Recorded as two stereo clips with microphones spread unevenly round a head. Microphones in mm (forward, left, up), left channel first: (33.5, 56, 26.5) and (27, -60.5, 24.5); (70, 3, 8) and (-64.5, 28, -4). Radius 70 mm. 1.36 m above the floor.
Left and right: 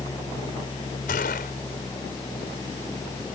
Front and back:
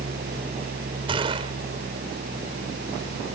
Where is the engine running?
155° left.